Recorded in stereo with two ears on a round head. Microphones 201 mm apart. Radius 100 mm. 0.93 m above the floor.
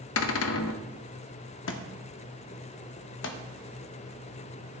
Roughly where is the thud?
Left.